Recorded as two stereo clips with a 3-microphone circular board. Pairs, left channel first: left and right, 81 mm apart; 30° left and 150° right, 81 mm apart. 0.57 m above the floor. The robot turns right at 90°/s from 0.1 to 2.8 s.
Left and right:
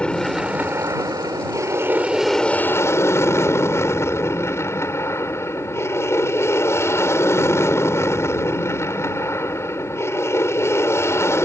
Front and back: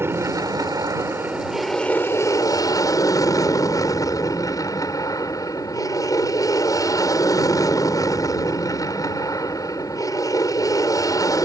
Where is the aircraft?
165° left; by 11.4 s 45° left.